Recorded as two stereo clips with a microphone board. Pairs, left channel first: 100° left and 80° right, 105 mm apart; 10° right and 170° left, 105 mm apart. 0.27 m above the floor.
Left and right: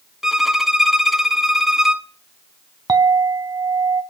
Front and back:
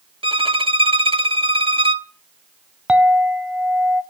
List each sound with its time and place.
0.2 s a violin: 165° right, 0.6 m
2.9 s a clink: 115° right, 0.8 m